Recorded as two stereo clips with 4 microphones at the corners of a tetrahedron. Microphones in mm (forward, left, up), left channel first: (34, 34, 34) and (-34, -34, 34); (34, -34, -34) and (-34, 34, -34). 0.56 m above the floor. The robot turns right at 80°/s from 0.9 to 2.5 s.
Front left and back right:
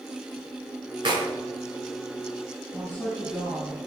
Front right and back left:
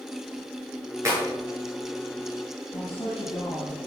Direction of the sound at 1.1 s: 170° right.